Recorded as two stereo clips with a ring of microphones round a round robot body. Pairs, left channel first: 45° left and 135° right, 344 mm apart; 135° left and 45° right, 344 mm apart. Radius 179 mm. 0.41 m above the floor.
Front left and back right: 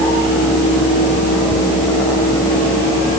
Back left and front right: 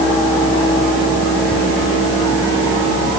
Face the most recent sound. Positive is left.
No sound to turn to.